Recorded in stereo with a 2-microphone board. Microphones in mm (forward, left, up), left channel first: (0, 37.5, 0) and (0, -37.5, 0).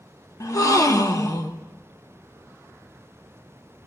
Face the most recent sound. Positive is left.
turn(degrees=45)  # may be behind; listen again after turning